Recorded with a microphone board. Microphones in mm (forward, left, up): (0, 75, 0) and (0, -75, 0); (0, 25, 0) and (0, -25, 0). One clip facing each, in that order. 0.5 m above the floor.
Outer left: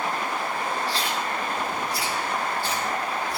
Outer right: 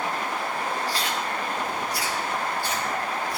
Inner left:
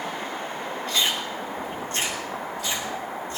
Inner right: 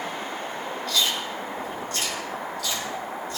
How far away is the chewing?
About 5 m.